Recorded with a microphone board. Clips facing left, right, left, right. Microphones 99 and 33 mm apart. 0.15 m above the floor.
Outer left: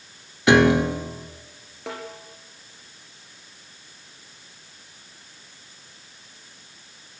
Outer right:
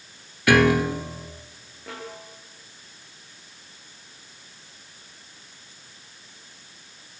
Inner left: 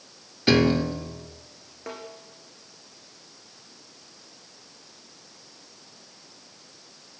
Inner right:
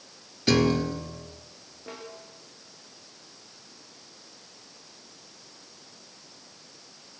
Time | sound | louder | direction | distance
0.5 | a piano | outer left 2 dB, inner left 2 dB | 20° left (ahead or behind) | 1.3 m
1.9 | a snare drum | outer left 3 dB, inner left 3 dB | 75° left (ahead or behind) | 6 m